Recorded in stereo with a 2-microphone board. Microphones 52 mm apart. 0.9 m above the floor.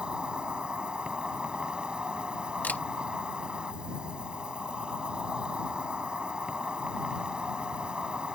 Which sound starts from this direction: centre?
An insect, at 0.0 s.